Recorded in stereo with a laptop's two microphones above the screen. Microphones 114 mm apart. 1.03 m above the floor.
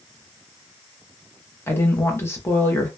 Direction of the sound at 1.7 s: 25° left (ahead or behind).